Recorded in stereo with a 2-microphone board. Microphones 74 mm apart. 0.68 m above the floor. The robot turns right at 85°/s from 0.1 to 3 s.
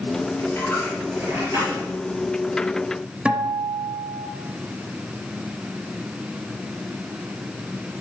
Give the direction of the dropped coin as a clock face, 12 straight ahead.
8 o'clock.